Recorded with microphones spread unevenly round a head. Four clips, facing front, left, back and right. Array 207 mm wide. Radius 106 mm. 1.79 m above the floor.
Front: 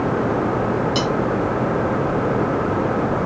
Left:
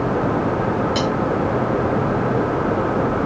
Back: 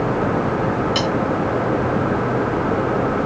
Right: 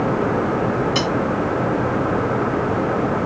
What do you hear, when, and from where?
0.9 s cutlery clinking: 115° right, 2.0 m